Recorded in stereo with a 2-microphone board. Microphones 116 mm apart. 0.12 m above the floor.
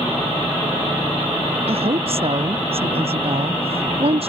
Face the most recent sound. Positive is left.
turn(degrees=-55)  # may be behind; listen again after turning